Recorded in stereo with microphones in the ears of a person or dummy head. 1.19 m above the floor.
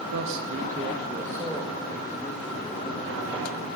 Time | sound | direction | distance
0.1 | a man speaking | 80° right | 1.0 m